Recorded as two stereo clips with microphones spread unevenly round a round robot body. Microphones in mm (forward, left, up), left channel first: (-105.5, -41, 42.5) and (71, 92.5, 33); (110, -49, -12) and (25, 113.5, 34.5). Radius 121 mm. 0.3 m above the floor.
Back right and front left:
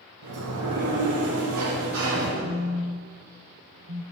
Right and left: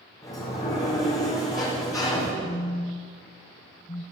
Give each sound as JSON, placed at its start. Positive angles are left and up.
{"t": 0.2, "sound": "a sliding door", "azimuth_deg": 10, "distance_m": 6.5}
{"t": 2.4, "sound": "a phone buzzing", "azimuth_deg": -10, "distance_m": 1.7}